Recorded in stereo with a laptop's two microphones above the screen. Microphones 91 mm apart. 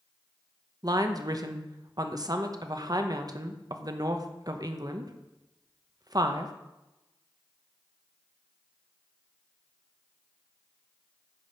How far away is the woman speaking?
About 1.0 m.